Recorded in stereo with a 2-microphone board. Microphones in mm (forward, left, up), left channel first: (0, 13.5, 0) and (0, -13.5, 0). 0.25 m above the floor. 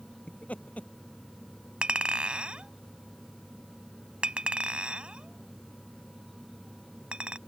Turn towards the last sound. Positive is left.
turn(degrees=-45)  # may be behind; listen again after turning